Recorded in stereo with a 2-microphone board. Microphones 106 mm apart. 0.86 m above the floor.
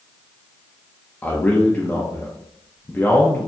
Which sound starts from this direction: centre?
A man speaking, at 1.2 s.